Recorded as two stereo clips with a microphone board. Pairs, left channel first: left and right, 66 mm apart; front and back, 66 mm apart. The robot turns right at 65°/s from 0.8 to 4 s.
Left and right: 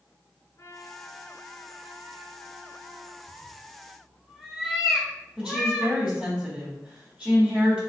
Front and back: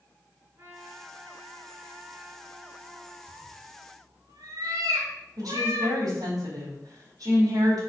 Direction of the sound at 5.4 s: 165° right.